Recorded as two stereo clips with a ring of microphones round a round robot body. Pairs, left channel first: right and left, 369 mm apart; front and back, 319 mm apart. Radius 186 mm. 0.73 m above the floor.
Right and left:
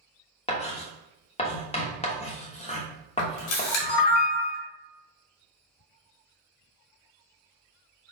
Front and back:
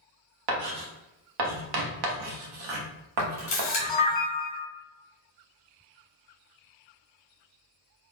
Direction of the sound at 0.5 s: 165° right.